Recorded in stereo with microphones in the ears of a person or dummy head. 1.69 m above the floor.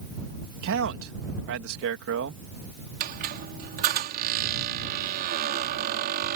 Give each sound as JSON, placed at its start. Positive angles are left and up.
{"t": 0.6, "sound": "a man speaking", "side_deg": -65}
{"t": 3.0, "sound": "a squeak", "side_deg": -50}